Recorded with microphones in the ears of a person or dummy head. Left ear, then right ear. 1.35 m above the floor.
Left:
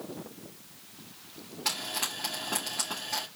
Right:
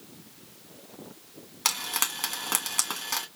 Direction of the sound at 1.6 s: 60° right (ahead or behind).